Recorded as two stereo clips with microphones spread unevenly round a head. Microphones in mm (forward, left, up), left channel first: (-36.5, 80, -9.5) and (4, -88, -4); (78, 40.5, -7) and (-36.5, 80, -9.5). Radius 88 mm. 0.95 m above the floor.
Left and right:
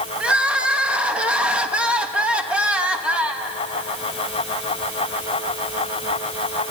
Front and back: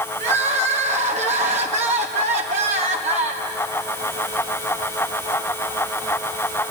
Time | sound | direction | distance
0.2 | crying | 160° right | 1.4 m